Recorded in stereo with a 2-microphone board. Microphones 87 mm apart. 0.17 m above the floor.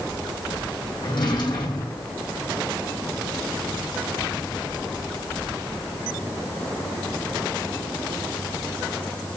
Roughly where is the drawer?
Left.